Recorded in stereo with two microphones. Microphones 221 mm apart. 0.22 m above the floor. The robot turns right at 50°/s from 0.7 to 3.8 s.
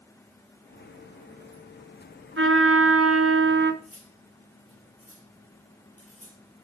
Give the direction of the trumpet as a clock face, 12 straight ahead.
4 o'clock.